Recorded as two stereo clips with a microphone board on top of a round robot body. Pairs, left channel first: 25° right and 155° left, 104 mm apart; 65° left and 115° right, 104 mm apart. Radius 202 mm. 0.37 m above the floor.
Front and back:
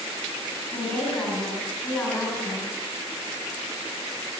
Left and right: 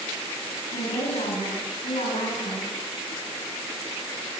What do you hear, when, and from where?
0.7 s a woman speaking: 60° left, 7.5 m